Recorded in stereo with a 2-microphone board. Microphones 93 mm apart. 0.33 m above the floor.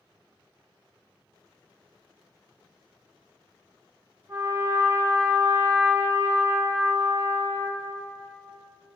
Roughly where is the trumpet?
Right.